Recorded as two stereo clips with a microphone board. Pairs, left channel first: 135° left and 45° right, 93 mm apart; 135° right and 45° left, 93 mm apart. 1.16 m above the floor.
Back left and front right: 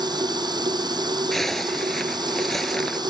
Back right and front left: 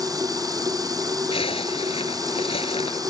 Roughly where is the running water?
Ahead.